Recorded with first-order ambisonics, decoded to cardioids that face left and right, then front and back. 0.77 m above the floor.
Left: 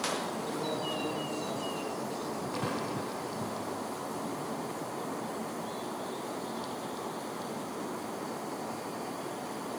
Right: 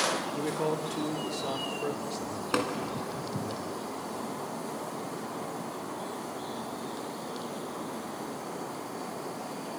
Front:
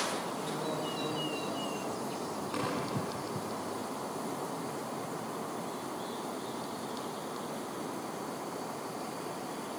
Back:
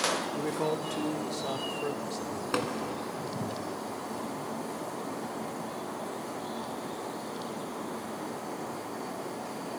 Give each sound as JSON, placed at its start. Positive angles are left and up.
{"t": 0.3, "sound": "a man speaking", "azimuth_deg": -140, "distance_m": 2.0}
{"t": 2.5, "sound": "tapping", "azimuth_deg": -130, "distance_m": 3.5}